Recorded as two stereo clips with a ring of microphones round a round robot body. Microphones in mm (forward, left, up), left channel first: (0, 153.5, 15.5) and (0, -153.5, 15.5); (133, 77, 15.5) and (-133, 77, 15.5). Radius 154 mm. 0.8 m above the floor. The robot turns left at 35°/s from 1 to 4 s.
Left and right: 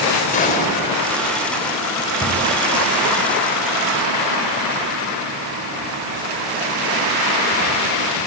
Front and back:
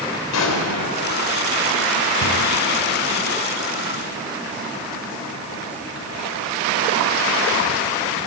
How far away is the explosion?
About 3.5 m.